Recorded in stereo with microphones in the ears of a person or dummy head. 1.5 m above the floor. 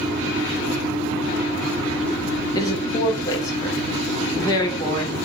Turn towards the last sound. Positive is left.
turn(degrees=20)  # may be behind; listen again after turning